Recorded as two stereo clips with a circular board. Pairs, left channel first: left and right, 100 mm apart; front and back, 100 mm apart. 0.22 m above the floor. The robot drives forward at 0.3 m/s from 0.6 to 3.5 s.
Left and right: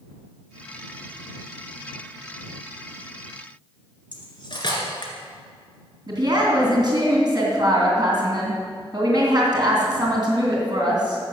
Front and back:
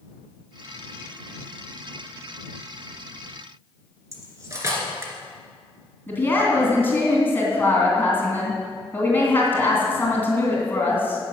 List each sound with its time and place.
4.1 s cutlery clinking: 120° left, 1.9 m
6.1 s a woman speaking: 65° right, 2.5 m